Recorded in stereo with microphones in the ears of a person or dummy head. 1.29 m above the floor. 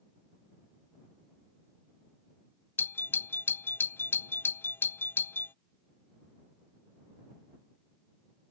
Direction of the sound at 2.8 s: 10° left (ahead or behind).